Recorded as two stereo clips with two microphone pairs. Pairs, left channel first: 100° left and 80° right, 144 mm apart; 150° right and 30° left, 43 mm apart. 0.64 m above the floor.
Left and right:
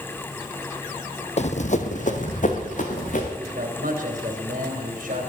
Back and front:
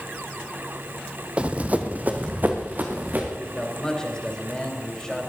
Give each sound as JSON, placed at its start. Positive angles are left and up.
{"t": 1.4, "sound": "running footsteps", "azimuth_deg": 85, "distance_m": 1.0}
{"t": 3.4, "sound": "a man speaking", "azimuth_deg": -80, "distance_m": 3.0}